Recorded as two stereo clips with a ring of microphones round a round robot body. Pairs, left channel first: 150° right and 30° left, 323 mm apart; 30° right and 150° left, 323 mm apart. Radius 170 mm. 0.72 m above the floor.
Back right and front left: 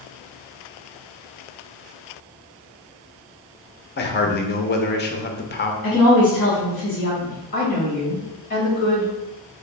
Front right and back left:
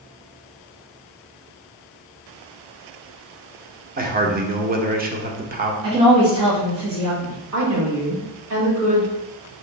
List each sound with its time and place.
4.0 s a man speaking: 175° right, 0.7 m
5.8 s a woman speaking: 165° left, 1.4 m
7.5 s a woman speaking: 150° left, 1.6 m